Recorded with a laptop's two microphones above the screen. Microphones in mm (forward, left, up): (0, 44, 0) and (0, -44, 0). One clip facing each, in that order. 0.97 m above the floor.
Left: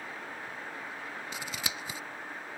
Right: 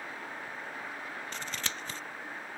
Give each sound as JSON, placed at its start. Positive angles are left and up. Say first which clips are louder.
{"t": 1.3, "sound": "scissors", "louder": "left 1 dB", "side_deg": 10}